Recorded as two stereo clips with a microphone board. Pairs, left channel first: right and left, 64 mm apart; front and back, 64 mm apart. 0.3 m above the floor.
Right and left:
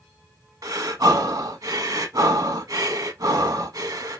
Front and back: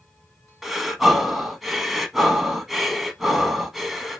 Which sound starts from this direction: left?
Breathing, at 0.6 s.